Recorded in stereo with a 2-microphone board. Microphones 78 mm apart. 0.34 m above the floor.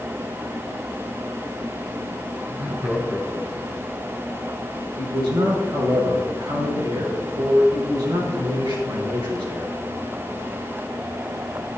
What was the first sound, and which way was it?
Laughter, 25° right (ahead or behind).